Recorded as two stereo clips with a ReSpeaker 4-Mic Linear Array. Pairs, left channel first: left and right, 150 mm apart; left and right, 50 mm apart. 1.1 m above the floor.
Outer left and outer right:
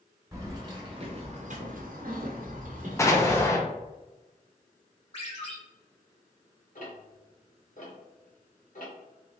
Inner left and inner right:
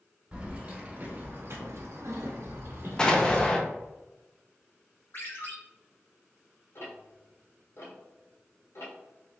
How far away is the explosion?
About 0.6 m.